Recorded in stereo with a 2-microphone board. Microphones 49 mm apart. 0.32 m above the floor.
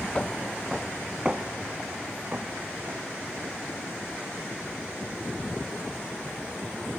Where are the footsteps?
20° left (ahead or behind), 0.5 m; by 3.6 s 45° right (ahead or behind), 2.0 m.